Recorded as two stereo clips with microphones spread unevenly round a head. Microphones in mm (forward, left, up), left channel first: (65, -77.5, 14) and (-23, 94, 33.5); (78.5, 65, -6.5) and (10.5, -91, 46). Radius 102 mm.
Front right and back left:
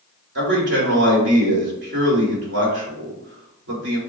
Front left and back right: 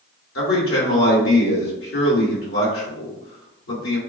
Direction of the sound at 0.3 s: 90° left.